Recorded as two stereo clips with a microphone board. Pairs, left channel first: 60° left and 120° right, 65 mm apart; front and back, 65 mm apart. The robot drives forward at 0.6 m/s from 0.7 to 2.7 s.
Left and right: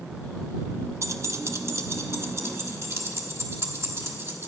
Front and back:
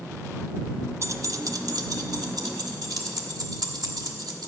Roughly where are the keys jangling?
Behind right.